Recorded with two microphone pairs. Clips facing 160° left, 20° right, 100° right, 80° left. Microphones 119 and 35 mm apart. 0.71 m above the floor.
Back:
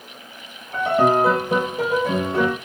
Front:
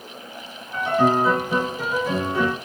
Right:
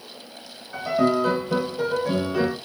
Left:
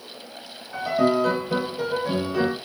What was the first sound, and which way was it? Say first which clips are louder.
A piano: back 2 dB, even; 170° left.